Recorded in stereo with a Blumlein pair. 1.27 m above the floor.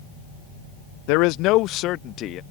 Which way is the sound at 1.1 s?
45° left.